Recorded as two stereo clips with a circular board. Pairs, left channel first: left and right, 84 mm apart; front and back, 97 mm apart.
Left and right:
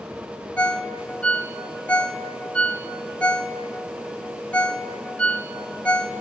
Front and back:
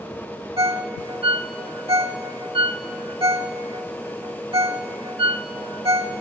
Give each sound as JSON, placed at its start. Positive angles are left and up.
{"t": 0.6, "sound": "a ringtone", "azimuth_deg": 165, "distance_m": 1.2}